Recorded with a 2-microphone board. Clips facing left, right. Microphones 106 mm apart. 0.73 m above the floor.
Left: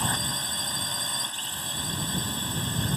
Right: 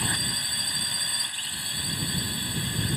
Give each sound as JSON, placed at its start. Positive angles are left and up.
{"t": 0.0, "sound": "a drone", "side_deg": 30}